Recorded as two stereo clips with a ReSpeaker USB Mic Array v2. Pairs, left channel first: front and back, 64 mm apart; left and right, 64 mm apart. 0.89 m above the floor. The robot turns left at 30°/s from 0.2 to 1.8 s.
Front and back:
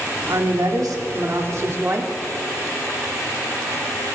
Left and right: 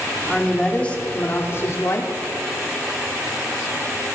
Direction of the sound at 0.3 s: Straight behind.